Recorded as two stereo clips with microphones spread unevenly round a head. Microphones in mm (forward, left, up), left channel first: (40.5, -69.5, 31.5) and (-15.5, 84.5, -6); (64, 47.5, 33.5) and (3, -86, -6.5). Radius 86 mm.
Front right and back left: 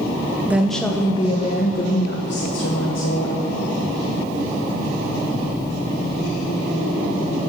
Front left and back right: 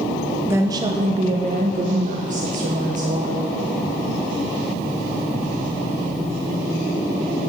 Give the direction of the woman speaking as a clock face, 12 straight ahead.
6 o'clock.